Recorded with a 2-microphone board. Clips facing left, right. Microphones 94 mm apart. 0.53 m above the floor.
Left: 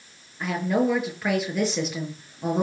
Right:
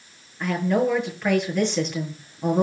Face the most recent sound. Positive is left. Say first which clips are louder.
# right 2 dB
turn(degrees=5)  # may be behind; listen again after turning